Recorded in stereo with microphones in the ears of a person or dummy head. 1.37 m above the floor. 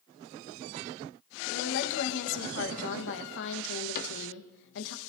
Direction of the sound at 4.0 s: 50° left (ahead or behind).